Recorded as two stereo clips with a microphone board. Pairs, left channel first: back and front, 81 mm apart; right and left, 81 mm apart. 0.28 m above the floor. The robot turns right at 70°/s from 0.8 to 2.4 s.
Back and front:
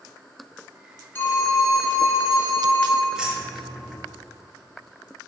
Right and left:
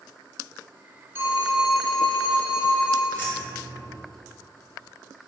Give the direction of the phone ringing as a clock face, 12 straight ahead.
8 o'clock.